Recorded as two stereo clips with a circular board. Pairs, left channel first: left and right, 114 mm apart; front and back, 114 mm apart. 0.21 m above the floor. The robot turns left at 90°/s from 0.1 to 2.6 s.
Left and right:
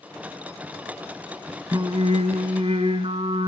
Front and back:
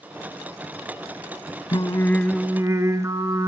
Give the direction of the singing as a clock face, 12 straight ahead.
1 o'clock.